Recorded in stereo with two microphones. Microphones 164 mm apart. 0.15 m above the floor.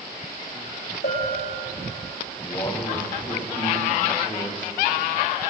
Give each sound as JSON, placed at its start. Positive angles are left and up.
{"t": 1.0, "sound": "a bell", "side_deg": 70, "distance_m": 8.5}
{"t": 2.4, "sound": "a man speaking", "side_deg": 25, "distance_m": 7.0}